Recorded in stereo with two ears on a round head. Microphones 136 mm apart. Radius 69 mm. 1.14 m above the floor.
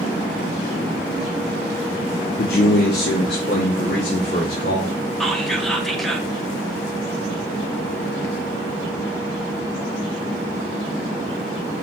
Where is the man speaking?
65° left (ahead or behind), 0.6 m; by 5.0 s 80° left, 2.5 m.